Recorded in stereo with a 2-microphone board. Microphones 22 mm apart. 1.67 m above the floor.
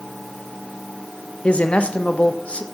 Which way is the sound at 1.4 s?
80° left.